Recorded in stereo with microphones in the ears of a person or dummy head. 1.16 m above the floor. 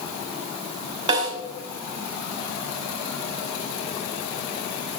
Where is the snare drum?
30° right (ahead or behind), 2 m.